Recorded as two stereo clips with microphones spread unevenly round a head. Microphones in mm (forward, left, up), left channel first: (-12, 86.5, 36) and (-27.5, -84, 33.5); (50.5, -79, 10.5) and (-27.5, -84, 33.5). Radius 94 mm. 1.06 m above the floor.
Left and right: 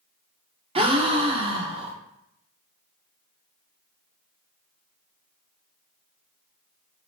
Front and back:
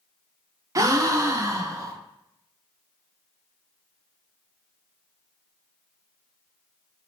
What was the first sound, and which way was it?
A gasp, 130° right.